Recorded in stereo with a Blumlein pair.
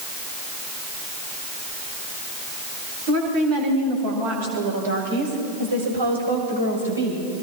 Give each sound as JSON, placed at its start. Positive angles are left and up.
{"t": 3.1, "sound": "a woman speaking", "azimuth_deg": -50, "distance_m": 8.5}